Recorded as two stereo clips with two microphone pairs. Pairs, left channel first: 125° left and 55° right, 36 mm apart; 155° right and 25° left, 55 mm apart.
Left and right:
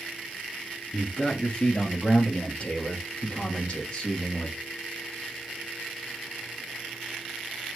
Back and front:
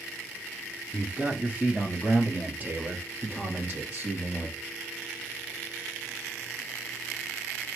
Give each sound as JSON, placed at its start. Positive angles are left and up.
{"t": 0.9, "sound": "a man speaking", "azimuth_deg": 80, "distance_m": 1.6}